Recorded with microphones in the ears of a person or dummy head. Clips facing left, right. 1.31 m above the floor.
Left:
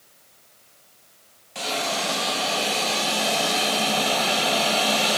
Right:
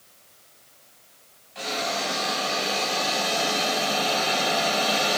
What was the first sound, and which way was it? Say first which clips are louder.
A hiss: left 1 dB; 75° left (ahead or behind).